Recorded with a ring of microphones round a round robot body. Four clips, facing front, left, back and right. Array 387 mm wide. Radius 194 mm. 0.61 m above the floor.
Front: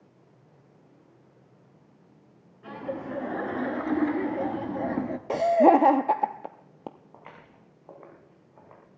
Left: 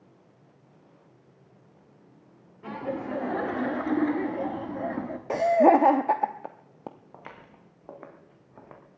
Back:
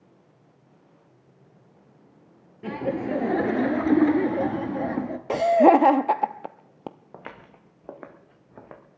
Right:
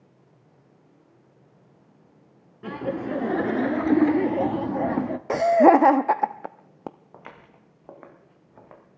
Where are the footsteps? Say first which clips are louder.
Right 1 dB, back 6 dB; 175° right, 2.5 m; by 8.8 s 175° left, 3.5 m.